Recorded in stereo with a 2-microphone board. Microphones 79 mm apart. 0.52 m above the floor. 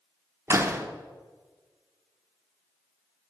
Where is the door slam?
35° right (ahead or behind), 0.8 m.